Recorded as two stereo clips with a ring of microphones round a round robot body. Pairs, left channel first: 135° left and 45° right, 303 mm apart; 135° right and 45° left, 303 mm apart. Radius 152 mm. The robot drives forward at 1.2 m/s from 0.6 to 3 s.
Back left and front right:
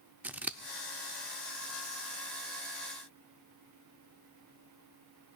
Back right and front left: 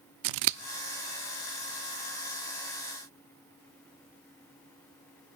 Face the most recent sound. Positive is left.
turn(degrees=175)